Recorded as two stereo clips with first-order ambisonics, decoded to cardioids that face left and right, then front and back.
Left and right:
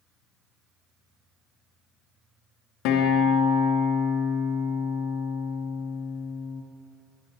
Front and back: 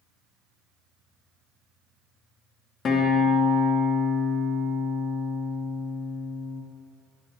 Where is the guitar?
60° left, 0.7 m.